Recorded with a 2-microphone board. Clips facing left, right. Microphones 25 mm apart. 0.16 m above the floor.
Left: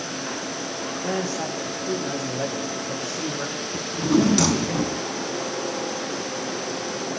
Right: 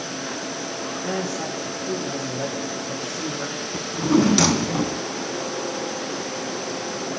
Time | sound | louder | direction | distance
1.0 | a man speaking | left 1 dB | 70° left (ahead or behind) | 9 m
3.7 | a drawer | right 1 dB | 25° right (ahead or behind) | 0.6 m